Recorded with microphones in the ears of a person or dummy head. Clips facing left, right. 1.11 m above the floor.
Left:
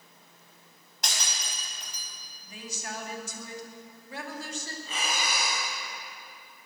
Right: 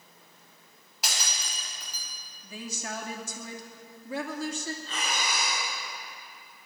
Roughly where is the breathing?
Centre.